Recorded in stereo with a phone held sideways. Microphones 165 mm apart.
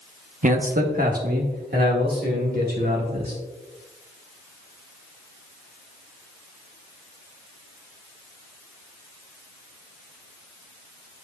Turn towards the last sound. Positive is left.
turn(degrees=-75)  # may be behind; listen again after turning